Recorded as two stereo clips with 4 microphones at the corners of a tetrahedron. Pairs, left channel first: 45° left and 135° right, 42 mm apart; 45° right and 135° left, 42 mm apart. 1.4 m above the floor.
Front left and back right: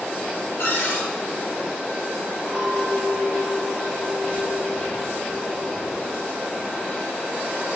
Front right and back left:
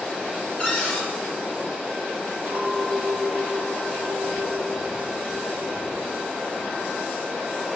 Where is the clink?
165° left, 1.3 m.